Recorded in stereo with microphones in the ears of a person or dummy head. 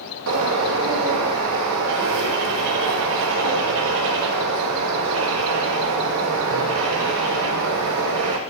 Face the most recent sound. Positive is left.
turn(degrees=-70)  # may be behind; listen again after turning